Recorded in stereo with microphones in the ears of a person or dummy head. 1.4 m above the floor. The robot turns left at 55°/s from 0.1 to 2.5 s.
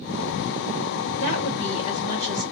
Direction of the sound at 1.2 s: 60° left.